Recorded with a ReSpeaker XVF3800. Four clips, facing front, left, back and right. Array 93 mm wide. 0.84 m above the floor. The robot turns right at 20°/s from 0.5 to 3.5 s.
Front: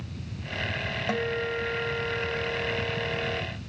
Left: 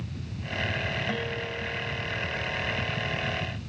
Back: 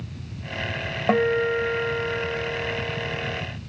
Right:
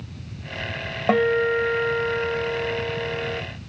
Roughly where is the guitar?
Behind right.